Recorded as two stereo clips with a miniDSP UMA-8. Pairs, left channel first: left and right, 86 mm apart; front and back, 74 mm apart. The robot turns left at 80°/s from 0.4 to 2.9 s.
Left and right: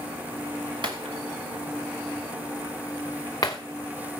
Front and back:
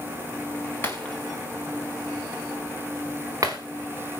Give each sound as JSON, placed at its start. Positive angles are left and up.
{"t": 0.8, "sound": "breaking glass", "azimuth_deg": -60, "distance_m": 3.0}